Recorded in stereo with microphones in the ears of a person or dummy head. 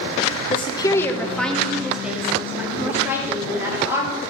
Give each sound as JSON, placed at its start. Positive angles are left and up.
{"t": 0.5, "sound": "a woman speaking", "side_deg": 40, "distance_m": 0.8}